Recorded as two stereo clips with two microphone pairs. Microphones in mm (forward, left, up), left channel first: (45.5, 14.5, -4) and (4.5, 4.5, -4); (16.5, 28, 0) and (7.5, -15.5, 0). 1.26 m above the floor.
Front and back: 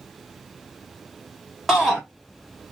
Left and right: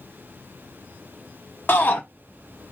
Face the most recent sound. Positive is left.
turn(degrees=105)